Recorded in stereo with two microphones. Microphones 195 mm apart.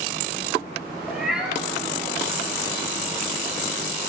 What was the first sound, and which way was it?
A cat meowing, 5° right (ahead or behind).